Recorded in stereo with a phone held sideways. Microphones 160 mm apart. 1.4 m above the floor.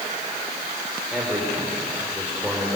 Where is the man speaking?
10° right (ahead or behind), 4.5 m.